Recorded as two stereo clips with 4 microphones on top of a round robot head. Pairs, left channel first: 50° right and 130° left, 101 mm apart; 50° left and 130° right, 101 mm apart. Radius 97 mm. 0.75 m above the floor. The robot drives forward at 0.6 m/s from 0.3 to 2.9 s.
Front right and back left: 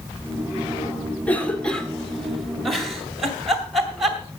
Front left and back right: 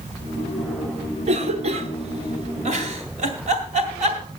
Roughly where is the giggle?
Behind right.